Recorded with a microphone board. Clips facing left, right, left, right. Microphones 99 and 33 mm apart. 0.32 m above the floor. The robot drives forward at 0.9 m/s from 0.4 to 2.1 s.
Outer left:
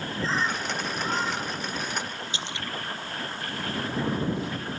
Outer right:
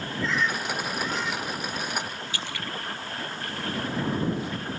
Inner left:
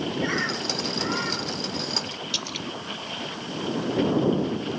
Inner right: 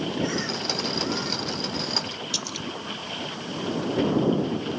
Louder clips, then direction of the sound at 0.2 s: Outer right 1 dB, inner left 1 dB; 30° left (ahead or behind).